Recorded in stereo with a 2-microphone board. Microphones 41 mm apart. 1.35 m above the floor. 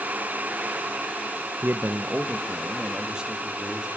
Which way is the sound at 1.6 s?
60° right (ahead or behind).